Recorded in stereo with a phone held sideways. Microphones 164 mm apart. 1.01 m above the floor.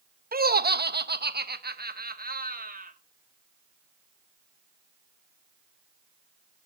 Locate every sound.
0.3 s laughter: 65° right (ahead or behind), 0.8 m; by 2.9 s 55° right (ahead or behind), 1.7 m